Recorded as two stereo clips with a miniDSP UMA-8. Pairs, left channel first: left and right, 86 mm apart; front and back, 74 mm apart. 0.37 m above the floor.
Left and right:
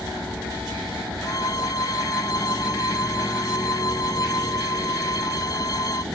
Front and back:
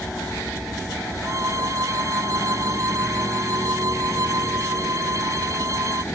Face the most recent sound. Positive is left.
turn(degrees=135)